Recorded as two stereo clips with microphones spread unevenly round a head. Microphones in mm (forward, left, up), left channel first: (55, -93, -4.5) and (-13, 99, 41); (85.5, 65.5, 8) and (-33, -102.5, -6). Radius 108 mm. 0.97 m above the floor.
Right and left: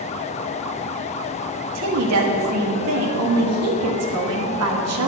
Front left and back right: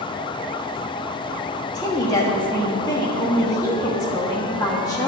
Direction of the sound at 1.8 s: 130° left.